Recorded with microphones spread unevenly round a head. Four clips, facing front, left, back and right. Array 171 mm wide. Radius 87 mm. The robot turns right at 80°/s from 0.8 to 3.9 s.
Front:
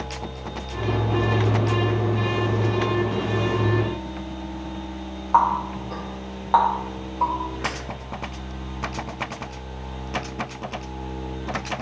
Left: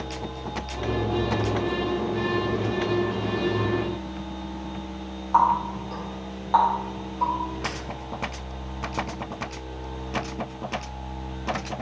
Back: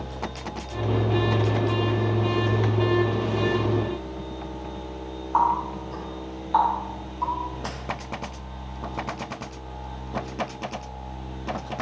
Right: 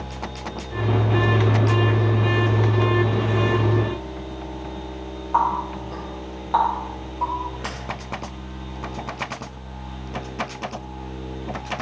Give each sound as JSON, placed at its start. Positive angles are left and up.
{"t": 5.3, "sound": "a running tap", "azimuth_deg": 5, "distance_m": 1.3}